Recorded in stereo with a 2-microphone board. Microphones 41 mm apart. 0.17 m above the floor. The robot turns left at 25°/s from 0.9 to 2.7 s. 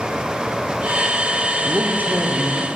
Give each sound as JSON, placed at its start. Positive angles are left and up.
{"t": 1.6, "sound": "a man speaking", "side_deg": -35, "distance_m": 4.0}